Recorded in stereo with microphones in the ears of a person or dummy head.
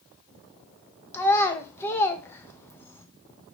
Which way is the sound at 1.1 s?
15° left (ahead or behind).